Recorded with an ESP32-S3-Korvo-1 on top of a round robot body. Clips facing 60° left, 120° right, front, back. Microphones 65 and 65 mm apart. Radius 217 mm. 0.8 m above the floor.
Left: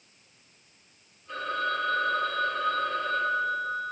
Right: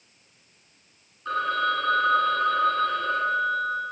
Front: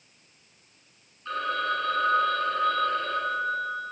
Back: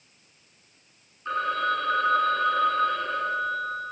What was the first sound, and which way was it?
A phone ringing, 115° right.